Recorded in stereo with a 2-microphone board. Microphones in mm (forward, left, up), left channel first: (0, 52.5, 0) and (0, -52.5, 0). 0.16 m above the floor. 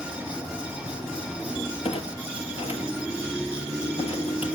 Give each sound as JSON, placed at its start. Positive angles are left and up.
{"t": 1.8, "sound": "a clunk", "side_deg": 70, "distance_m": 1.3}